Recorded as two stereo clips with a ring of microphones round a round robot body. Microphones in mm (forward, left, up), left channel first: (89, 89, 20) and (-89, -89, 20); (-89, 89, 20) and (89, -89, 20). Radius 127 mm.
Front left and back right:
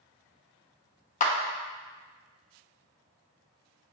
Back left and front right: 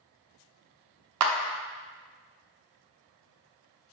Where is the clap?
15° right, 0.6 m.